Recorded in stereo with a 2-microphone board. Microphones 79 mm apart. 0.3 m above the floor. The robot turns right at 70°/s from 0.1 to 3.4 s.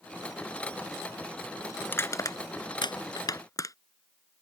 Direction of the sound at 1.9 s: 20° left (ahead or behind).